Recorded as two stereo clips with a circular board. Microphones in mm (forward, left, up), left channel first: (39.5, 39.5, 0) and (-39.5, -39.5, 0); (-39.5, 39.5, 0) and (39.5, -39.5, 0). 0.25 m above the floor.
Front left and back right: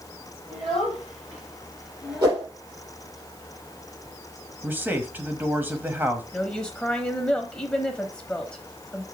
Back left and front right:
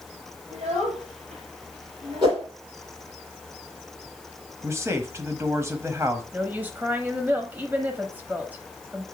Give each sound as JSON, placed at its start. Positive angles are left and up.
{"t": 0.5, "sound": "a child speaking", "azimuth_deg": -50, "distance_m": 5.0}
{"t": 2.2, "sound": "a whoosh", "azimuth_deg": -80, "distance_m": 4.5}
{"t": 4.6, "sound": "a man speaking", "azimuth_deg": -80, "distance_m": 1.1}
{"t": 6.3, "sound": "a woman speaking", "azimuth_deg": -20, "distance_m": 0.9}